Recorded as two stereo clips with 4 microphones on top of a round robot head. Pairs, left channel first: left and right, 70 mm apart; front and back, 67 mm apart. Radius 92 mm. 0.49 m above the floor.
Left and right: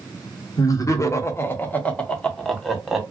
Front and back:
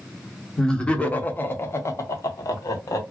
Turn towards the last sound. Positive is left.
turn(degrees=-5)